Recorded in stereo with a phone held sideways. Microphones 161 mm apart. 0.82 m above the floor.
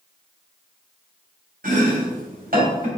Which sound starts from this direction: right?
Chopping, at 1.6 s.